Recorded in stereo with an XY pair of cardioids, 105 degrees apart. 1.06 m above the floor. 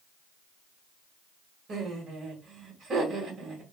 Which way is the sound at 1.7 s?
45° right.